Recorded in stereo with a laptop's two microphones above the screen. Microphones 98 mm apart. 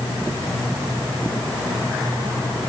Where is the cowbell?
I don't hear a cowbell.